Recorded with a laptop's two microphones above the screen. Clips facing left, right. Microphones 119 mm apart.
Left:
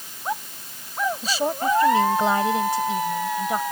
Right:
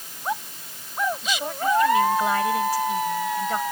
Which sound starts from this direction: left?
A woman speaking, at 1.2 s.